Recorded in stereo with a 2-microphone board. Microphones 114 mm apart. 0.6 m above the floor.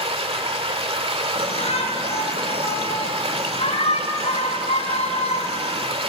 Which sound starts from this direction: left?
A shout, at 1.4 s.